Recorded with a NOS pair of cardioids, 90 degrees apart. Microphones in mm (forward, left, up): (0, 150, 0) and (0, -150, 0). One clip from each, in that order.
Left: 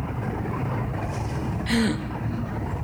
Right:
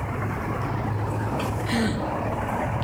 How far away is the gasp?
About 2.5 m.